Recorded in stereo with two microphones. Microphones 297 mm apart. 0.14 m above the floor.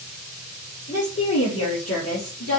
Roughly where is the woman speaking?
Left.